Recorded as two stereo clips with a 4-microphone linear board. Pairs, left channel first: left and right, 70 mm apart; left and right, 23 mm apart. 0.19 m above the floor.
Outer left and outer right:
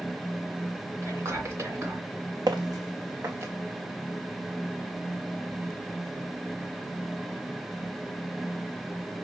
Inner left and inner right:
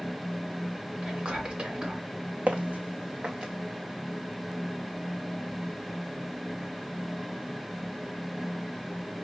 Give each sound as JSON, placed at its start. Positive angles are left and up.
{"t": 1.0, "sound": "whispering", "side_deg": -40, "distance_m": 2.0}
{"t": 2.5, "sound": "footsteps", "side_deg": -80, "distance_m": 0.7}